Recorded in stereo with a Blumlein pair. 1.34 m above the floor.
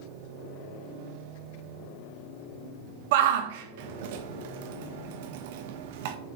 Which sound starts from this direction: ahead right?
A shout, at 3.1 s.